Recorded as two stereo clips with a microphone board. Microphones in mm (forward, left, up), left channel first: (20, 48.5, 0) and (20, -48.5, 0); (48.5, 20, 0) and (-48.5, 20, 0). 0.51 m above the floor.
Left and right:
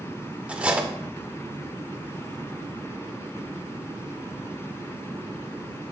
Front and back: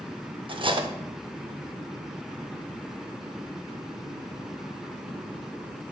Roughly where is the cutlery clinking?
Behind.